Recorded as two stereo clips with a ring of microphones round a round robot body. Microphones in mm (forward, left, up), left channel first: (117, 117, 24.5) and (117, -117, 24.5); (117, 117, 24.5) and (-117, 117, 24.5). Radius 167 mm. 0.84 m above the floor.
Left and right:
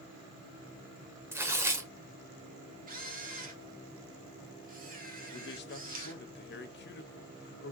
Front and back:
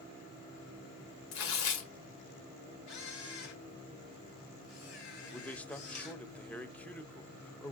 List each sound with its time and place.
1.3 s tearing paper: 10° right, 1.4 m
2.9 s a camera shutter: 35° right, 1.5 m
5.3 s a man speaking: 85° left, 0.9 m